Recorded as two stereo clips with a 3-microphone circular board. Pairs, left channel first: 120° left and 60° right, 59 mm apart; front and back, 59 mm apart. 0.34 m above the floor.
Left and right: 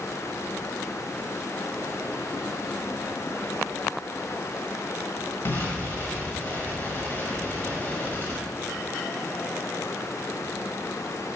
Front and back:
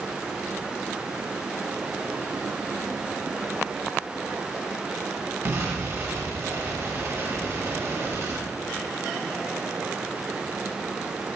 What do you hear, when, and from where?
5.5 s an explosion: 160° left, 1.2 m